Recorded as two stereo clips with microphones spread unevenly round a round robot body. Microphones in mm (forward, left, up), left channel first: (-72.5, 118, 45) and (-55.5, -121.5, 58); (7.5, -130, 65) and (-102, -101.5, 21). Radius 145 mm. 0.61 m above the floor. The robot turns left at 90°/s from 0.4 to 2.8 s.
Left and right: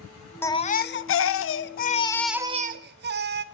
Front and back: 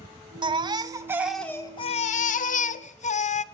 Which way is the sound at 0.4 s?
170° left.